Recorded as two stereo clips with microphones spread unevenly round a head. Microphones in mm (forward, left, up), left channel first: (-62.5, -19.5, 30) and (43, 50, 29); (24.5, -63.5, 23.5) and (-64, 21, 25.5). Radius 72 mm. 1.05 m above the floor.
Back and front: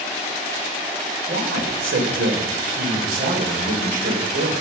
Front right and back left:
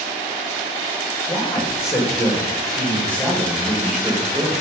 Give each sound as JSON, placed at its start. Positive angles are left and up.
{"t": 1.3, "sound": "a man speaking", "azimuth_deg": 25, "distance_m": 4.0}